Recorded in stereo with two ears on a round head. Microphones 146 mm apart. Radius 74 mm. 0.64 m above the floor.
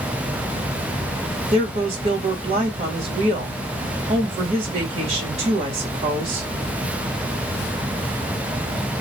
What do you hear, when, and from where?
1.5 s a woman speaking: 35° right (ahead or behind), 1.3 m